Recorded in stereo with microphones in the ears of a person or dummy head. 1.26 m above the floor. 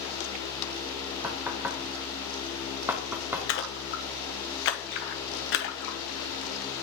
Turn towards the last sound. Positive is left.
turn(degrees=55)  # may be behind; listen again after turning